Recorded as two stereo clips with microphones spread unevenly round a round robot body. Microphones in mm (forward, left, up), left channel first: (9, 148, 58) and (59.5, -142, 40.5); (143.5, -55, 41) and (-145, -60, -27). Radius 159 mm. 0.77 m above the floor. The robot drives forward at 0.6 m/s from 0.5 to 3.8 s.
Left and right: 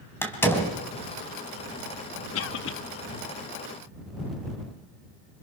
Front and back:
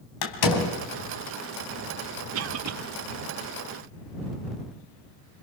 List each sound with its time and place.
0.2 s a door slam: 15° left, 3.5 m; by 0.8 s 20° left, 3.5 m
2.3 s a cough: 145° left, 0.9 m; by 2.8 s 155° left, 1.1 m